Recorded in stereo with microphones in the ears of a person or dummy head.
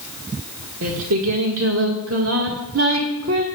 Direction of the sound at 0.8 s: 75° right (ahead or behind).